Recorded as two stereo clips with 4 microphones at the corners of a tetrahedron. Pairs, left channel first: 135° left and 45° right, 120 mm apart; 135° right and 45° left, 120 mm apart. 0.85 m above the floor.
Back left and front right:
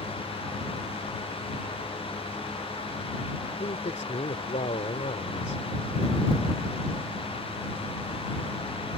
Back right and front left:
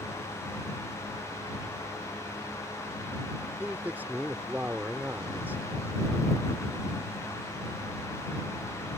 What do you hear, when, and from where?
3.6 s a man speaking: 120° left